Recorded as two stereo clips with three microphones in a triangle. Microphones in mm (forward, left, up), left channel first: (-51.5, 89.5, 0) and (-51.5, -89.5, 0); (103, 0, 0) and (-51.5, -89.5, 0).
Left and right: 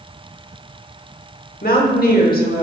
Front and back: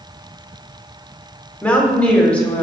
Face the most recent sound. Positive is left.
turn(degrees=110)